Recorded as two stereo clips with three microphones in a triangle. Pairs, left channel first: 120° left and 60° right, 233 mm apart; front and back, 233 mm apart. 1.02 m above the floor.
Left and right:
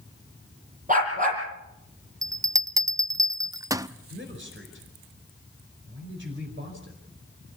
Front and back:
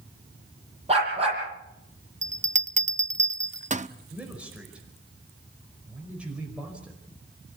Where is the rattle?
I don't hear a rattle.